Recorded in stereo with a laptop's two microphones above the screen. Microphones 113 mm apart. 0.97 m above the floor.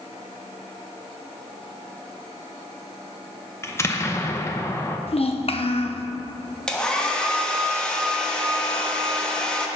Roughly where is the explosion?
Left.